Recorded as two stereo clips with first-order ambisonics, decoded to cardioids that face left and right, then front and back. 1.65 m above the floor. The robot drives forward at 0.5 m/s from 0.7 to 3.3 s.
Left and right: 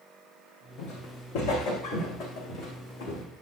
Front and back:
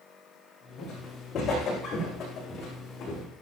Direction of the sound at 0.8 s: 65° left.